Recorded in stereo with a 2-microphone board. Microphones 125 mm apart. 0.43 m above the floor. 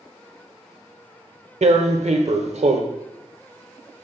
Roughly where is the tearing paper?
Right.